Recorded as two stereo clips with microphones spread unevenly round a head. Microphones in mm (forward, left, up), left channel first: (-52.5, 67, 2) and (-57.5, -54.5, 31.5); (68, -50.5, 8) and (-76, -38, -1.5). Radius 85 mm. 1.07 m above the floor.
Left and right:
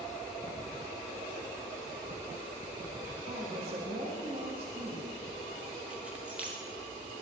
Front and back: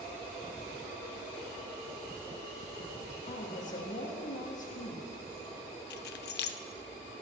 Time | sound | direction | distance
3.3 | a woman speaking | 35° right | 1.8 m
5.9 | keys jangling | 10° right | 0.6 m